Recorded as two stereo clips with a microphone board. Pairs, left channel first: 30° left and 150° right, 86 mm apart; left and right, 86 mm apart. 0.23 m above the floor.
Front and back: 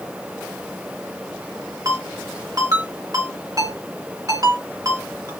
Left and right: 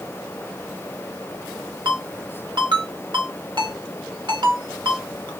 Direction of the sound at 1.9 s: 110° right.